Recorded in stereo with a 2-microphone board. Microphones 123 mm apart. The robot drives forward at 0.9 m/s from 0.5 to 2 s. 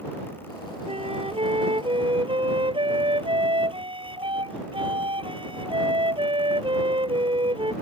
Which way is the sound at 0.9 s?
50° right (ahead or behind).